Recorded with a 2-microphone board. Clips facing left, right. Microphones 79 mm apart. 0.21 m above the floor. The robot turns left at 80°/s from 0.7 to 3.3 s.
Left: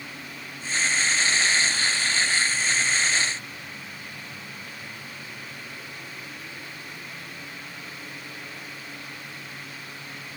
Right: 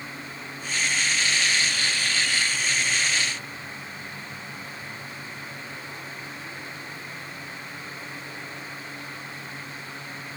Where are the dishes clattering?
I don't hear dishes clattering.